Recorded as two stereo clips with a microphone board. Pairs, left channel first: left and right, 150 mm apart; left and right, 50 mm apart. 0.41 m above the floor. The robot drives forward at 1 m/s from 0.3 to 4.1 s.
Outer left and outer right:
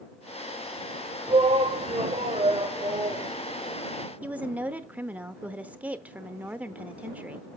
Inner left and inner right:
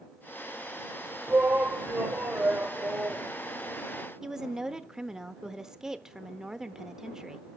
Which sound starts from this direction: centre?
A woman speaking, at 4.2 s.